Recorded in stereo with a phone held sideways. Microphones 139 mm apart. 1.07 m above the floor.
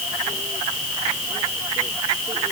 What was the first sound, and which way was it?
Only background noise.